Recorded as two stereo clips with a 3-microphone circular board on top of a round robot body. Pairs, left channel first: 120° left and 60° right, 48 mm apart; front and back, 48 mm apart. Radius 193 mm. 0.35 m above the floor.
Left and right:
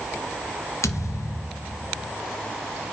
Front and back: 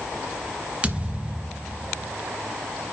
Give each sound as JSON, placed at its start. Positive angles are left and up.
{"t": 0.8, "sound": "a thud", "azimuth_deg": 115, "distance_m": 1.4}